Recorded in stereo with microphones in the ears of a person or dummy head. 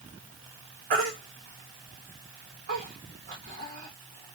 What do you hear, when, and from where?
0.9 s a baby crying: 45° right (ahead or behind), 1.2 m